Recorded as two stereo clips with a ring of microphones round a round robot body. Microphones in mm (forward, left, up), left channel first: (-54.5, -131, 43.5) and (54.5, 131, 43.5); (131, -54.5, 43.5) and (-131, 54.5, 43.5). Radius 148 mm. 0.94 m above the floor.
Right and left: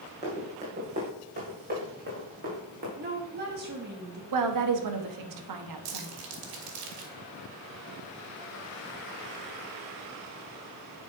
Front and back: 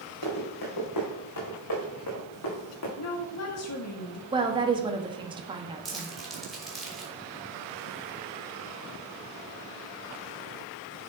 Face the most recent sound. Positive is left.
turn(degrees=70)